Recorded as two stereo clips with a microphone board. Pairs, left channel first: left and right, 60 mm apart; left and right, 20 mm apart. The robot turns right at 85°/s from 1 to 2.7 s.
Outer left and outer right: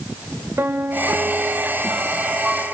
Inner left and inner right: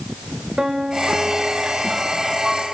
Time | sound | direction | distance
0.6 | a piano | 130° right | 1.6 m